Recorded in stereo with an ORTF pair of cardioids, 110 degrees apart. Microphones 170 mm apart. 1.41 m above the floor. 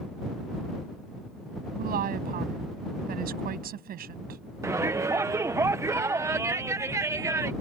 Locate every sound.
1.8 s a woman speaking: 60° right
4.6 s a shout: 15° right